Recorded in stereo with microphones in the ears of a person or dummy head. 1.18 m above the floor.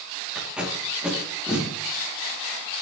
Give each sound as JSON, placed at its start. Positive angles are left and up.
{"t": 0.3, "sound": "tape being pulled", "side_deg": -5, "distance_m": 3.0}